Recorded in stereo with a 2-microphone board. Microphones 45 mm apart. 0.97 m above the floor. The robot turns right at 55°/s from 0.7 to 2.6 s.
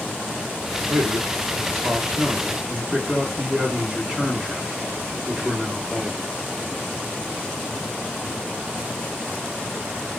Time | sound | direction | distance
0.9 | a man speaking | 105° right | 1.6 m